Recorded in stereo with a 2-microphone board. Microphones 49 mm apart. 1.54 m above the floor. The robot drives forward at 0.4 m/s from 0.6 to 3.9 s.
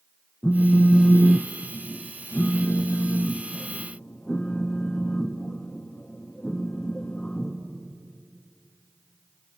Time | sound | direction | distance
0.4 | a phone buzzing | 30° left (ahead or behind) | 0.7 m